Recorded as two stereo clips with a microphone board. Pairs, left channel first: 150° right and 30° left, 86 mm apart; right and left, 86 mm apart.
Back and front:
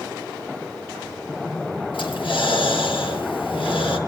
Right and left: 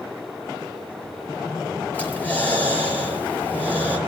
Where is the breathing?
160° right, 6 m.